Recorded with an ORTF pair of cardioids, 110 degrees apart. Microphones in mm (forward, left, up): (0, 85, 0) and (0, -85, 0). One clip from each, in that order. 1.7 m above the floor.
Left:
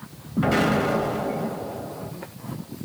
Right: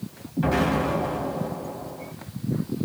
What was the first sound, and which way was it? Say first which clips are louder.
An explosion: left 2 dB; 30° left.